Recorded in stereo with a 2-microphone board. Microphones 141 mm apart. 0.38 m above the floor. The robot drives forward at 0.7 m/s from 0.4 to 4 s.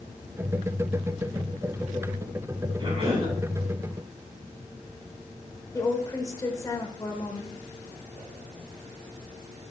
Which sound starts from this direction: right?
A cough, at 2.8 s.